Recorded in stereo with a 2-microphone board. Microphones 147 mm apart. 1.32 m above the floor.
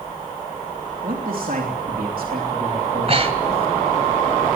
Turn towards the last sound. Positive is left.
turn(degrees=-40)  # may be behind; listen again after turning